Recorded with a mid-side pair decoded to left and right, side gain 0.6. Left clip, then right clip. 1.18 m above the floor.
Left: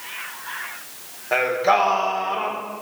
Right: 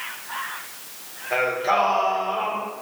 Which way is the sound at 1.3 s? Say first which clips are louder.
Left 3 dB; 30° left.